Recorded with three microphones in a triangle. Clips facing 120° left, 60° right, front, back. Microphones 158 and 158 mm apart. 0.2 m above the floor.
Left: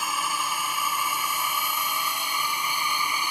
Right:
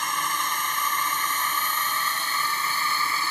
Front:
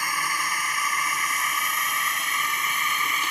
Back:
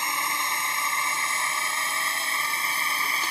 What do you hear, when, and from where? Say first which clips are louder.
0.0 s a drone: even, front 1 dB; 165° right; by 3.3 s 175° right